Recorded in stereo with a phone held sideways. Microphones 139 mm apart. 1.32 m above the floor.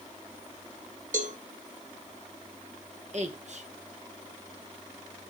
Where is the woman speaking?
55° right (ahead or behind), 1.7 m.